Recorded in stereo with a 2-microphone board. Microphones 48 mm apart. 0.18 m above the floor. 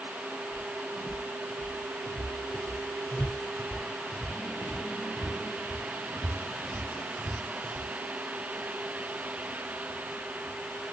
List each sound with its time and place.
0.5 s footsteps: 85° left, 2.5 m; by 7.9 s 25° right (ahead or behind), 2.5 m